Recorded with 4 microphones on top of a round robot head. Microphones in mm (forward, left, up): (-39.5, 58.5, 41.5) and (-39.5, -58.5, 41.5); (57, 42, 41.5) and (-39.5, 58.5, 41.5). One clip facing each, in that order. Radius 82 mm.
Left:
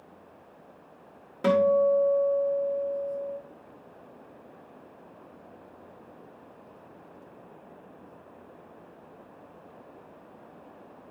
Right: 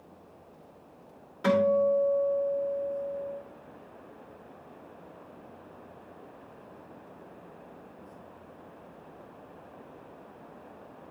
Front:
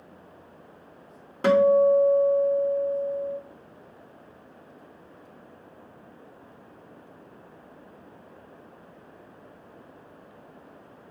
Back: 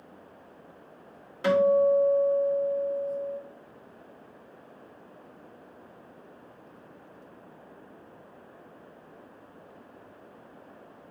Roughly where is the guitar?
Ahead left.